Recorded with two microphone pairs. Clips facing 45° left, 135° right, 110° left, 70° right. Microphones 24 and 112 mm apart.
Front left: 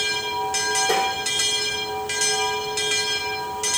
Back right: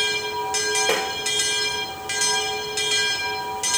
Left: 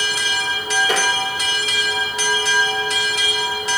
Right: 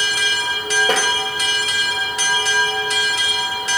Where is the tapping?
110° right, 3.5 m.